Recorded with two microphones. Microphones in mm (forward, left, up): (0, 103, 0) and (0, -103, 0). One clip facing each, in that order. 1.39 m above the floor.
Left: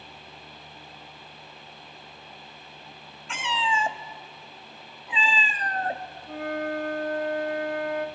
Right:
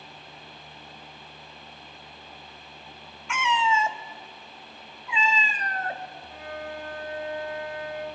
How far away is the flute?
About 2 m.